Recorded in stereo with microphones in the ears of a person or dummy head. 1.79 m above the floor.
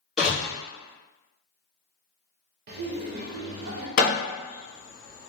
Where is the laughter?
55° right (ahead or behind), 0.5 m.